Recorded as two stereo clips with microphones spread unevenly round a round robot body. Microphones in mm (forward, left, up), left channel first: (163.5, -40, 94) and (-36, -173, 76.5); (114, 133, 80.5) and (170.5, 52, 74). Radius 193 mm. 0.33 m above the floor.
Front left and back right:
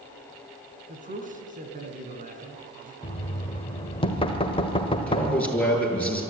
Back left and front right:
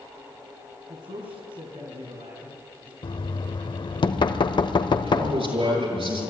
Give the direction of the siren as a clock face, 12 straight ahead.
I don't hear a siren.